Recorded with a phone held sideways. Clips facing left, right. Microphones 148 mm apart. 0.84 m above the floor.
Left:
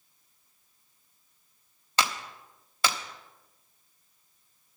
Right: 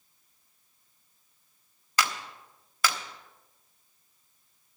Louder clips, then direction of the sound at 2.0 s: Even; 25° left (ahead or behind).